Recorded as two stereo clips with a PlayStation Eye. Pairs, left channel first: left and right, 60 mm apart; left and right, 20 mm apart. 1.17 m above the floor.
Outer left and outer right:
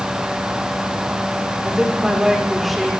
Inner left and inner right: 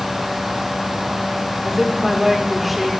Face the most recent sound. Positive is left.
turn(degrees=0)  # may be behind; listen again after turning